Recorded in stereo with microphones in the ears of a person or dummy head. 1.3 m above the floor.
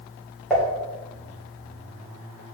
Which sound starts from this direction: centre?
Dishes clattering, at 0.5 s.